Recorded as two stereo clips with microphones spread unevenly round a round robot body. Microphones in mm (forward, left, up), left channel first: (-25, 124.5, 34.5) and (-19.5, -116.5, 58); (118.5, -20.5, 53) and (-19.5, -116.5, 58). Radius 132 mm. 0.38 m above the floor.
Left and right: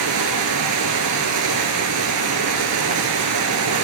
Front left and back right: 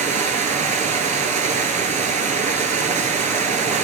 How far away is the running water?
About 1.1 m.